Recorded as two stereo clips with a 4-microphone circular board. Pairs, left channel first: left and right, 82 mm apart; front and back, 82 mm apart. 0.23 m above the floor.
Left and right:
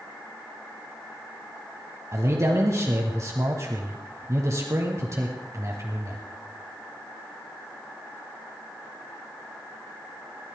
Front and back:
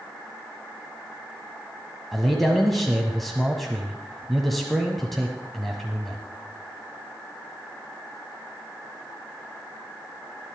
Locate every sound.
2.1 s a man speaking: 85° right, 1.3 m